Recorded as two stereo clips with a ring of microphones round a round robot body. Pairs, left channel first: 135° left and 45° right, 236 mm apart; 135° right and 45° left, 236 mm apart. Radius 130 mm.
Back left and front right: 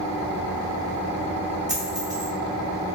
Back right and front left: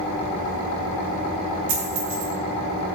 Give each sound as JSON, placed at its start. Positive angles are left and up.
{"t": 1.7, "sound": "a dropped coin", "azimuth_deg": 30, "distance_m": 0.8}